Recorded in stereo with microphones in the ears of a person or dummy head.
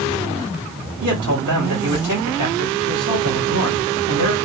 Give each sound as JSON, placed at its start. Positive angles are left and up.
{"t": 1.0, "sound": "a man speaking", "side_deg": -65, "distance_m": 2.0}